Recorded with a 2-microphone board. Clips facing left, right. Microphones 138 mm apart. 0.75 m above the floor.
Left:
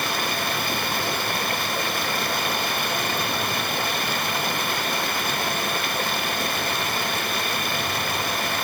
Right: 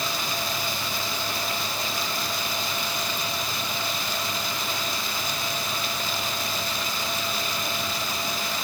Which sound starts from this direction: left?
Running water, at 0.0 s.